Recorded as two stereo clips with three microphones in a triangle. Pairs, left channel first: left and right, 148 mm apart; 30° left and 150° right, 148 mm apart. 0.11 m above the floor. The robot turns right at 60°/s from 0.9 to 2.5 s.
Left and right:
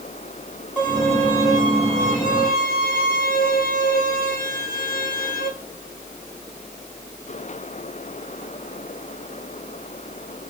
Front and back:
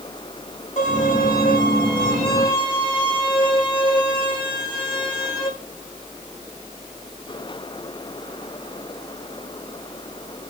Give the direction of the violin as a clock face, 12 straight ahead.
12 o'clock.